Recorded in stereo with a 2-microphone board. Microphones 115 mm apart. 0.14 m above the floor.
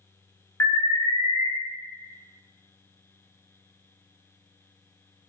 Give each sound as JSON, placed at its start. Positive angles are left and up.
{"t": 0.6, "sound": "an alarm", "side_deg": 20, "distance_m": 0.9}